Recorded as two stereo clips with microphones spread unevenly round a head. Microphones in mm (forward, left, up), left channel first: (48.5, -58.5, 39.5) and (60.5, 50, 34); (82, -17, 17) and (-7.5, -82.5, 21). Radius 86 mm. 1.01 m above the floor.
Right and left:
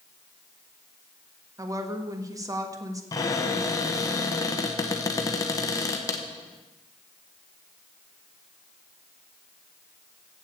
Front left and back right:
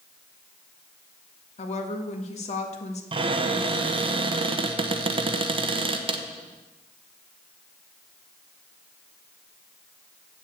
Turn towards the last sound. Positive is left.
turn(degrees=-145)